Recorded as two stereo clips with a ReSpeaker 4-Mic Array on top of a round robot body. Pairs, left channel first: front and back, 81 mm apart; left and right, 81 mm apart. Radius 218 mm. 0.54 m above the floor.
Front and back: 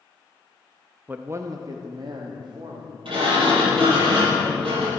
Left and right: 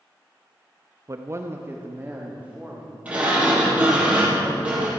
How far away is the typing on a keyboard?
No typing on a keyboard in this recording.